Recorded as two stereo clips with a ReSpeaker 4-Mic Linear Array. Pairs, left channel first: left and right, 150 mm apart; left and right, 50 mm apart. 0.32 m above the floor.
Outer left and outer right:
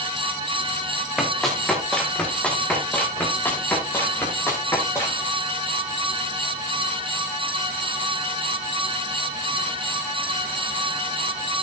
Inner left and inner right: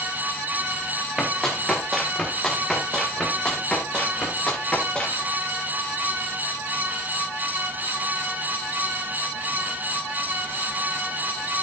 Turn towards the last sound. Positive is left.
turn(degrees=20)  # may be behind; listen again after turning